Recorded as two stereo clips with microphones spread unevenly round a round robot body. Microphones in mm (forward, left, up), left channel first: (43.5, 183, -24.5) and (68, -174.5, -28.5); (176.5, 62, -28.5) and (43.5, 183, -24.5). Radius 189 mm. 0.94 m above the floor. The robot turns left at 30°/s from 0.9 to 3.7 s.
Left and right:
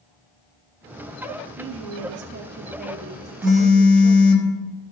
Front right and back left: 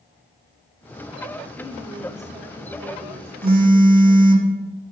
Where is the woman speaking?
115° right, 0.8 m; by 4.4 s straight behind, 0.8 m.